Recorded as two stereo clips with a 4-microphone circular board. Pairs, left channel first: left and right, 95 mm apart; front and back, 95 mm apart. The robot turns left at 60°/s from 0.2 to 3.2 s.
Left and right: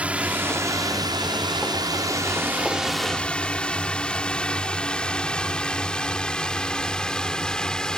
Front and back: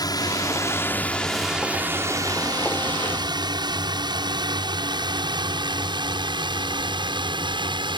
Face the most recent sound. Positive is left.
turn(degrees=170)